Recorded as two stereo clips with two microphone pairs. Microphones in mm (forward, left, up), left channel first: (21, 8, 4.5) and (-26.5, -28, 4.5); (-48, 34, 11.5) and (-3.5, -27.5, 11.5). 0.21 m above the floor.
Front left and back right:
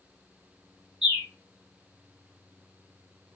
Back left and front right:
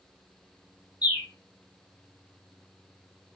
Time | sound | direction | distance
1.0 | a bird | 135° left | 1.6 m